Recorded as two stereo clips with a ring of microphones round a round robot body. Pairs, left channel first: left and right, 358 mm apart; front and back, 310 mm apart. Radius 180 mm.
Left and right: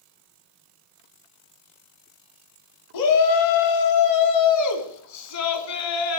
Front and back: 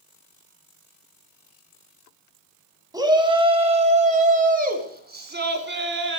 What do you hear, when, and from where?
2.9 s a shout: 105° left, 2.5 m; by 6.2 s 130° left, 3.5 m